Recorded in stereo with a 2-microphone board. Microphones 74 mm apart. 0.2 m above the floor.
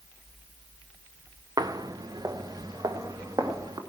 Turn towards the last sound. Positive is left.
turn(degrees=-50)  # may be behind; listen again after turning